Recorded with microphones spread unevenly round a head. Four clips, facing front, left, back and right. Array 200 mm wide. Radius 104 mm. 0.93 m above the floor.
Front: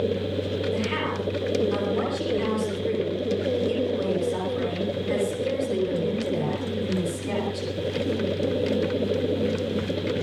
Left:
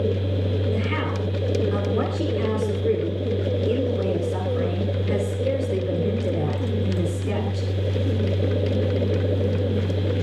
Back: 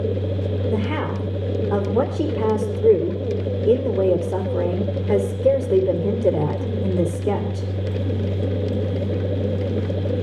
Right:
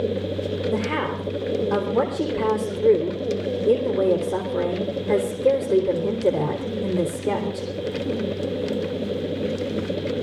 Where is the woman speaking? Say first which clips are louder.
Right 2 dB, back 3 dB; 150° right, 3.5 m.